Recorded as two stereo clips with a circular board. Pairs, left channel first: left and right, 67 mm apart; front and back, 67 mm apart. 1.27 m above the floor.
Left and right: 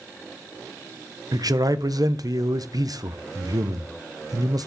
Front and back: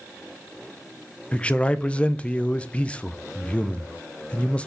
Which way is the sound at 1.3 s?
70° right.